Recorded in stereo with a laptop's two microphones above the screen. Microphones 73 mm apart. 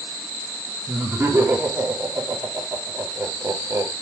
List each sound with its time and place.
0.9 s laughter: 35° right (ahead or behind), 3.5 m